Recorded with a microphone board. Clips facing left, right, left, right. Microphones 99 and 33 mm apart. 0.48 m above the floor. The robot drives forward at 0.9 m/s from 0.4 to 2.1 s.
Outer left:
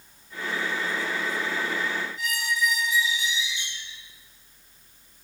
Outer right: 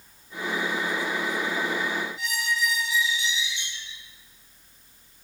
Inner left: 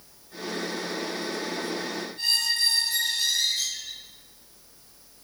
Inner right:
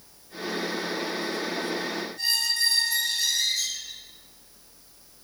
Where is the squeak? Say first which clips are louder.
Even, inner left 1 dB; 45° left (ahead or behind), 1.8 m.